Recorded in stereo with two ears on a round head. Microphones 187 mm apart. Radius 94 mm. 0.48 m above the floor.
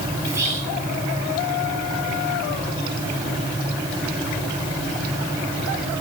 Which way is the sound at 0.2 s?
15° right (ahead or behind).